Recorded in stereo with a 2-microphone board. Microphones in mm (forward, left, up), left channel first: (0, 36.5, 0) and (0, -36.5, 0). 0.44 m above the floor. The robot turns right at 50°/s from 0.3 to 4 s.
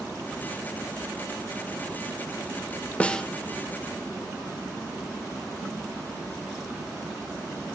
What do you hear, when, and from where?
3.0 s a snare drum: 20° left (ahead or behind), 0.6 m; by 3.2 s 10° left (ahead or behind), 0.6 m